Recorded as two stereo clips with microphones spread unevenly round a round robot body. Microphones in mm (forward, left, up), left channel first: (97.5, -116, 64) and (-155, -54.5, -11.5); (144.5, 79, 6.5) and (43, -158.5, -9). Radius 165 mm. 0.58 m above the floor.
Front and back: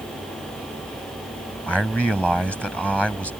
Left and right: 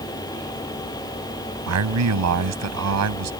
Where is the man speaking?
105° right.